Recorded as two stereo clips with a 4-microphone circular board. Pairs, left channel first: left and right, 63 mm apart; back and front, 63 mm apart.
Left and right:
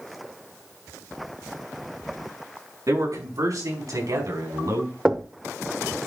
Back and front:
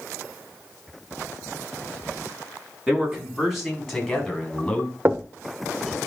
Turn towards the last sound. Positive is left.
turn(degrees=-20)